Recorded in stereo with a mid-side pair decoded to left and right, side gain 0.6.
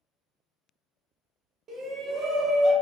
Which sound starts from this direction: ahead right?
A shout, at 1.7 s.